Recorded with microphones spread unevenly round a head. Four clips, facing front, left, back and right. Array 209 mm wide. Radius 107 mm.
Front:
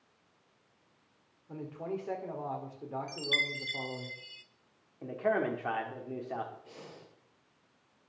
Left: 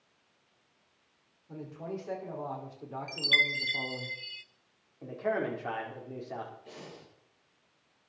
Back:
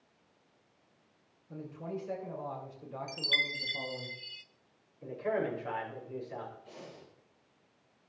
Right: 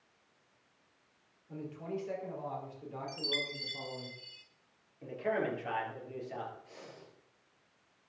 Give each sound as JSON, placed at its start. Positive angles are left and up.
{"t": 1.5, "sound": "a man speaking", "azimuth_deg": 15, "distance_m": 5.0}
{"t": 3.1, "sound": "a chime", "azimuth_deg": 120, "distance_m": 0.5}
{"t": 5.0, "sound": "a man speaking", "azimuth_deg": 20, "distance_m": 4.0}
{"t": 6.7, "sound": "breathing", "azimuth_deg": 65, "distance_m": 6.0}